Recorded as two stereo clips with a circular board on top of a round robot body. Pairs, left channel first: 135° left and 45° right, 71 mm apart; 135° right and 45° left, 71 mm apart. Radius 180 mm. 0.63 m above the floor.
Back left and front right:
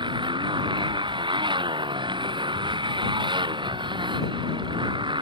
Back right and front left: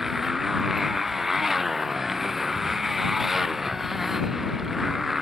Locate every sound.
0.0 s a motorcycle: 40° right